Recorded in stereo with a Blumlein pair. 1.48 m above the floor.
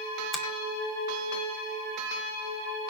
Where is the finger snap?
20° left, 2.5 m.